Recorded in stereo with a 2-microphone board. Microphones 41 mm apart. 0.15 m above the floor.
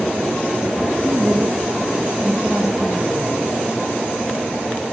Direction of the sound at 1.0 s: 35° right (ahead or behind).